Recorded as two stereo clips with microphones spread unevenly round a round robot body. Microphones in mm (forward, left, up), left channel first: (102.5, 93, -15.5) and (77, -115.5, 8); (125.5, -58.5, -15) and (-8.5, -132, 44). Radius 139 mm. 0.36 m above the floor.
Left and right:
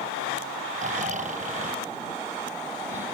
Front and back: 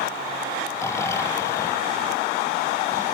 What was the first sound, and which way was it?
Snoring, 45° right.